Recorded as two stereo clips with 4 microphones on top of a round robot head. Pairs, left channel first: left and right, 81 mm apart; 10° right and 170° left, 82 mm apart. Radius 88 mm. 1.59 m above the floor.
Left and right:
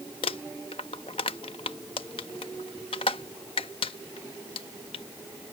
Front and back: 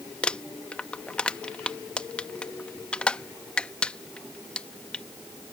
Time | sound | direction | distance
0.2 | crumpling | 65° left | ?